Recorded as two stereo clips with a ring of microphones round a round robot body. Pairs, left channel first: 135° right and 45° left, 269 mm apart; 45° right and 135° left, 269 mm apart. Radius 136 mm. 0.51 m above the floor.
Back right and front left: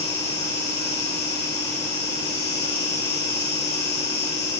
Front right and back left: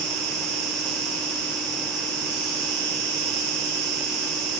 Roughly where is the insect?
Behind.